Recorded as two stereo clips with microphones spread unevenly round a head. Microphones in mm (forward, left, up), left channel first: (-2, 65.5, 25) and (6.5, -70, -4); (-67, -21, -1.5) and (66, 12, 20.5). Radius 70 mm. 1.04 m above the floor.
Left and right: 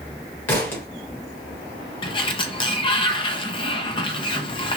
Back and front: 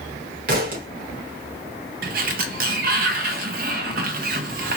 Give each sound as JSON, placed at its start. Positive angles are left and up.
{"t": 0.5, "sound": "a thud", "azimuth_deg": 25, "distance_m": 1.3}
{"t": 2.0, "sound": "a sliding door", "azimuth_deg": 35, "distance_m": 0.7}